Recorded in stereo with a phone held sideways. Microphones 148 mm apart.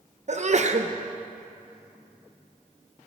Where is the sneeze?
50° right (ahead or behind), 0.6 m.